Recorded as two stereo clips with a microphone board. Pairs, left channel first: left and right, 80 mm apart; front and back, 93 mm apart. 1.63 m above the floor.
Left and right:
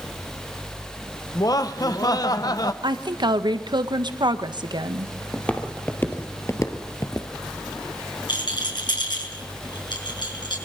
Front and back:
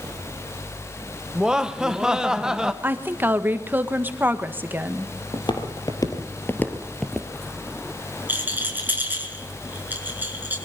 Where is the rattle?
110° left, 6 m.